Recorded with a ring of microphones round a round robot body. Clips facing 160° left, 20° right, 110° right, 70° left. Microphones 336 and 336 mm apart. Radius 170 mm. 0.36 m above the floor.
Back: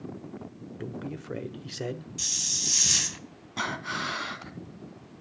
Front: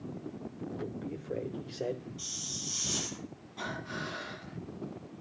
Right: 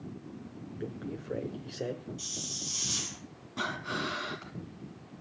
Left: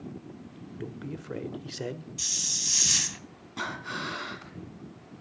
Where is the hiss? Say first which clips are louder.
Back 2 dB, right 2 dB; 115° left, 1.1 m.